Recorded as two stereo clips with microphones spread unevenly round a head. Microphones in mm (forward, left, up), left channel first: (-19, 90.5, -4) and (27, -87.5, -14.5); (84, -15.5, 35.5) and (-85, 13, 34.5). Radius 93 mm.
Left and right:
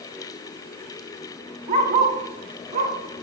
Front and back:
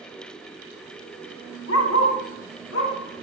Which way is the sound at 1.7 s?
20° right.